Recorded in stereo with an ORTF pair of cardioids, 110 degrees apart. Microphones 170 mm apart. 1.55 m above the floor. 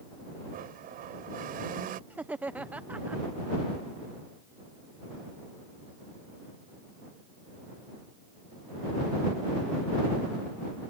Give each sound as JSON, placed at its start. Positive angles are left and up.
{"t": 0.5, "sound": "a blender", "azimuth_deg": -65}
{"t": 2.1, "sound": "laughter", "azimuth_deg": -10}